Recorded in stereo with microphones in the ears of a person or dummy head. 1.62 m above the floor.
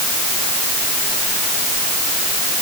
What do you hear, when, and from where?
Only background noise.